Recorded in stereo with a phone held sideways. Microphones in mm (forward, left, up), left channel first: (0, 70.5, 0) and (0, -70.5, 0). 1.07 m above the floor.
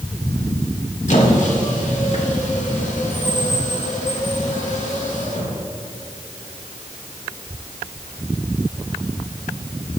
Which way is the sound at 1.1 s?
60° left (ahead or behind).